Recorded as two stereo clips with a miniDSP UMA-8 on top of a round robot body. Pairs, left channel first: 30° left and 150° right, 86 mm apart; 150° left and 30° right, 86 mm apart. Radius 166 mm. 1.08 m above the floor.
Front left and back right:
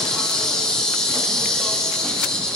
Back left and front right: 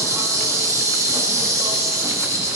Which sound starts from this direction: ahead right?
An insect, at 0.0 s.